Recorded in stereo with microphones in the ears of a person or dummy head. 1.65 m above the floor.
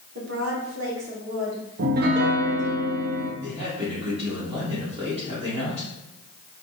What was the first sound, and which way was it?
A woman speaking, 90° right.